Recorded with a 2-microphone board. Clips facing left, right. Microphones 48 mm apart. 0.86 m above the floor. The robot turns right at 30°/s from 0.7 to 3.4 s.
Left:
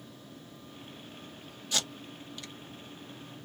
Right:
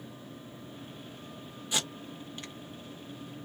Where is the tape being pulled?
20° right (ahead or behind), 0.8 m; by 2.5 s 35° right (ahead or behind), 0.8 m.